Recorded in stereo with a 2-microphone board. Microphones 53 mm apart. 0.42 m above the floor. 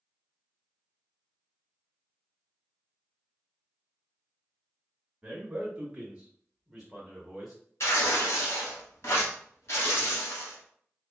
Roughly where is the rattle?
No rattle in this recording.